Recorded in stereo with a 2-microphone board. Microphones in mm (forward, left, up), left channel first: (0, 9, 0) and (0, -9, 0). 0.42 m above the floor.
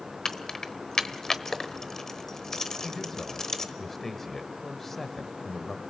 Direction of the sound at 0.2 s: 35° left (ahead or behind).